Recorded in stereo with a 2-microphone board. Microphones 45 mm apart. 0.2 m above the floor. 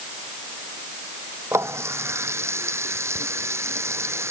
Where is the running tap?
80° right.